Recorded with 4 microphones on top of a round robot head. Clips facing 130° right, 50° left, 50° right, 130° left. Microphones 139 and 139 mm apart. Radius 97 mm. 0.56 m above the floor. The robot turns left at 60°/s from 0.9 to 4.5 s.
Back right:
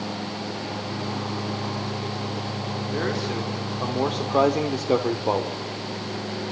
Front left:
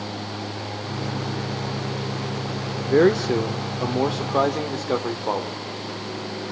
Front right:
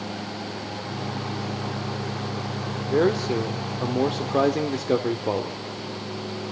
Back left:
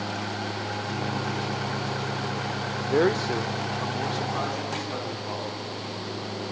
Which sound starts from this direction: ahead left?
A man speaking, at 2.9 s.